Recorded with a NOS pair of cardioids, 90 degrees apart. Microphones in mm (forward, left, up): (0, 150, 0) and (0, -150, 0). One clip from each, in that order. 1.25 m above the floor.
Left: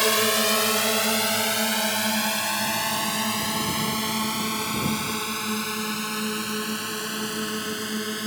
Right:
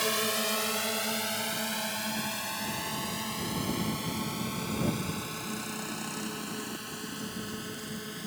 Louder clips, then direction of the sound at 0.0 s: Left 8 dB; 55° left.